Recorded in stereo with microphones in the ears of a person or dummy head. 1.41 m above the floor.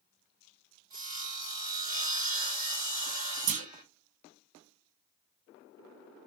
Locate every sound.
0.9 s sawing: 25° right (ahead or behind), 1.6 m
3.5 s a clunk: 65° right (ahead or behind), 0.6 m